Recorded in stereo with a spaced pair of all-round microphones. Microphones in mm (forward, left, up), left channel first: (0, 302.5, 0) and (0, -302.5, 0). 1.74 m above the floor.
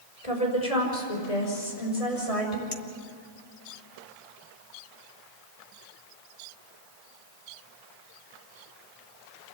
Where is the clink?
65° left (ahead or behind), 1.9 m.